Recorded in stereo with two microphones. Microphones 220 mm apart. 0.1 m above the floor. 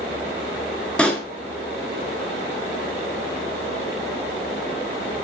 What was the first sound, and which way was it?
A pop, 5° left (ahead or behind).